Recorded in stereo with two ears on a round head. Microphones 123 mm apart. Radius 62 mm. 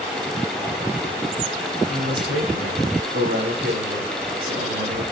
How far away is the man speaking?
About 5 m.